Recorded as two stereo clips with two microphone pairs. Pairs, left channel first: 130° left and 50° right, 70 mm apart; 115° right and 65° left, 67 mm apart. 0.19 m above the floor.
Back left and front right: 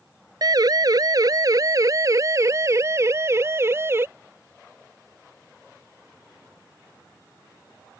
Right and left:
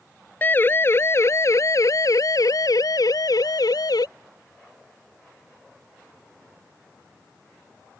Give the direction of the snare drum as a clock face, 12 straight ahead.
No snare drum in this recording.